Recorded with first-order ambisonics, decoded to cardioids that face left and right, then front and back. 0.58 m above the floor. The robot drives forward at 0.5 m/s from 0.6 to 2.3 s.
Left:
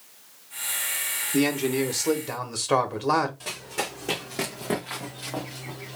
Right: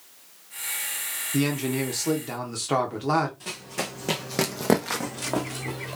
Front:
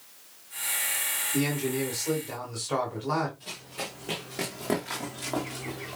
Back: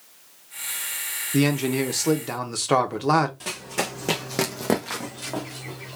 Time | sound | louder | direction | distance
1.3 | a man speaking | left 3 dB, back 9 dB | 170° left | 1.0 m
3.4 | running footsteps | left 1 dB, back 9 dB | 170° left | 1.6 m